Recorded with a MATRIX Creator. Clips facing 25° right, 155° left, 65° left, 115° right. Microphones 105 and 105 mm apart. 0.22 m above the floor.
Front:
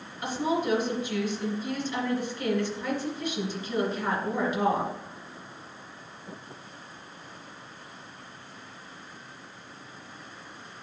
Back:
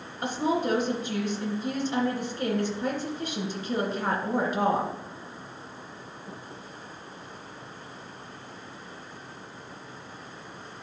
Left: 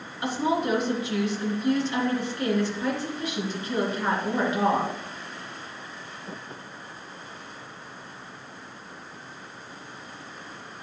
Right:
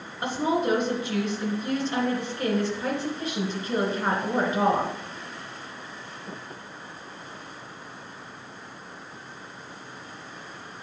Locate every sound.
0.2 s a woman speaking: 170° right, 2.5 m